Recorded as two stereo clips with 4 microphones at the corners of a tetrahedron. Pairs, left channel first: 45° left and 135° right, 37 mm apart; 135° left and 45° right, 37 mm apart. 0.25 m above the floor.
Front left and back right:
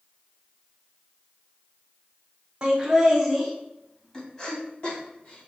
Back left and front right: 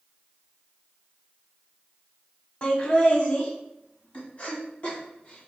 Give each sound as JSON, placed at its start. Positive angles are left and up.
{"t": 2.6, "sound": "laughter", "azimuth_deg": 170, "distance_m": 1.2}